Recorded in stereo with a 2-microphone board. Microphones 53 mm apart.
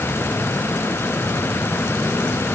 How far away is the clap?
I don't hear a clap.